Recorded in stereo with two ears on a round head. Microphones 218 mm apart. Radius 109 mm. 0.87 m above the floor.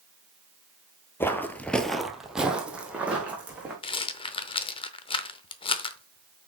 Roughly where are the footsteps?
Centre.